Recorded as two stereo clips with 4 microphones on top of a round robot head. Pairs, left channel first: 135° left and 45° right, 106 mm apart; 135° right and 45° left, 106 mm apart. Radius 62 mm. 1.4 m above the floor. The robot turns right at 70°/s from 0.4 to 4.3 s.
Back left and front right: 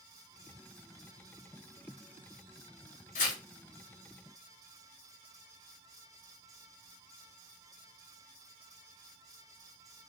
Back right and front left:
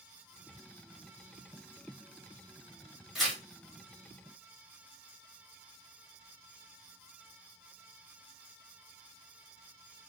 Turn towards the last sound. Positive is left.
turn(degrees=-145)